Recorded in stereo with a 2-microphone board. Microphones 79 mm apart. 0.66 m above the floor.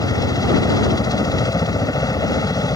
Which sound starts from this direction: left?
A helicopter, at 0.0 s.